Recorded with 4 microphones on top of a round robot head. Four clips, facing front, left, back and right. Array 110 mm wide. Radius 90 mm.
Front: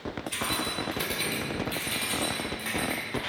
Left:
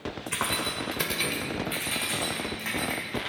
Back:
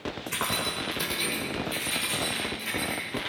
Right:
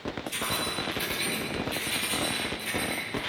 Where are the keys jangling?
130° left, 1.9 m; by 3.2 s 50° left, 4.5 m.